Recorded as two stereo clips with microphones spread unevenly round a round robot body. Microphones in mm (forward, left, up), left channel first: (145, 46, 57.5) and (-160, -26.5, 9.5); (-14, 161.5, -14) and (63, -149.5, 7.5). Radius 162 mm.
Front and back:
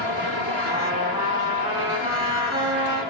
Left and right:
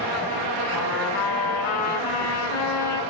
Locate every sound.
0.7 s a trumpet: 115° left, 6 m